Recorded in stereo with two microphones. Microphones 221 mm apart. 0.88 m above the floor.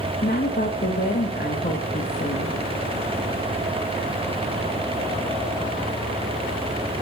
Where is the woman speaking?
45° left (ahead or behind), 0.8 m.